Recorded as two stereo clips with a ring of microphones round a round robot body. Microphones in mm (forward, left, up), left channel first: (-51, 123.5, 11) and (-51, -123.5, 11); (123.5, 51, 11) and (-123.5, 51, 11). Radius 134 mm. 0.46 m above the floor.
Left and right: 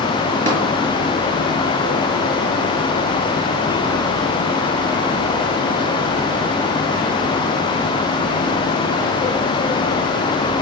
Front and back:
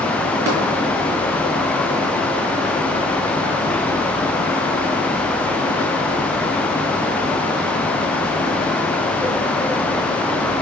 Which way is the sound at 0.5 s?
150° right.